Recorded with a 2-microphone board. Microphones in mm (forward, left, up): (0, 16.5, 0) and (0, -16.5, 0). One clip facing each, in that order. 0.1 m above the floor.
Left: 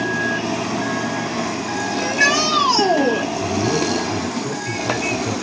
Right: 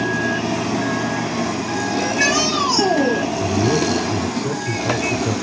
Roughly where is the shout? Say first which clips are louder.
Left 2 dB; centre.